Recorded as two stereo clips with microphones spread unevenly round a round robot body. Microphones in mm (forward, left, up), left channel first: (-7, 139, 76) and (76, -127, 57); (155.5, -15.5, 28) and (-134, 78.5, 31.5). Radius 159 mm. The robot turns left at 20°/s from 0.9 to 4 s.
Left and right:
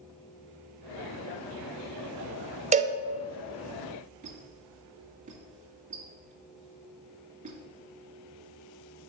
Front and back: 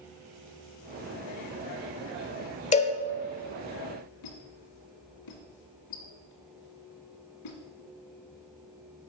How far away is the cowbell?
About 0.7 m.